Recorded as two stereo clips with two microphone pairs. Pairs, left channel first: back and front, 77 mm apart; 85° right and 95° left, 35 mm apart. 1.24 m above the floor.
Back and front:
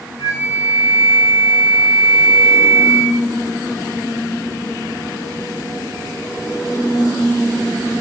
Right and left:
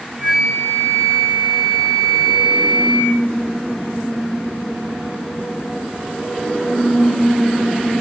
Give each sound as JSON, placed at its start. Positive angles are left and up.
{"t": 0.2, "sound": "a flute", "azimuth_deg": -140, "distance_m": 7.5}